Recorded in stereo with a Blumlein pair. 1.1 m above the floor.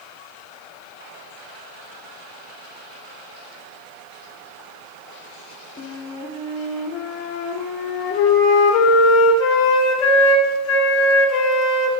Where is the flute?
30° left, 2.5 m.